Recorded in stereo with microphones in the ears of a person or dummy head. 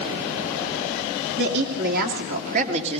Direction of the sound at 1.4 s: 65° right (ahead or behind).